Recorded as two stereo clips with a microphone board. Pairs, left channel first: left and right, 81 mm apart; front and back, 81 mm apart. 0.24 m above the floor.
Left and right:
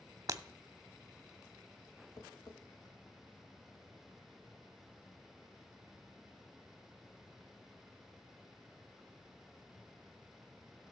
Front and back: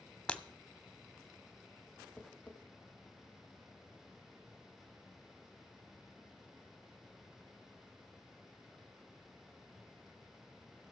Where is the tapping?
75° left, 1.2 m.